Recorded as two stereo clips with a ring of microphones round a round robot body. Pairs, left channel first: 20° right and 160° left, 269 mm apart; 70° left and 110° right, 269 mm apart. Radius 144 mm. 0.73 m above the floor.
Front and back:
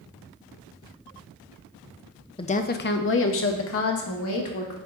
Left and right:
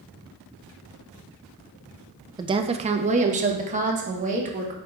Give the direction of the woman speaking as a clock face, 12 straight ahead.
2 o'clock.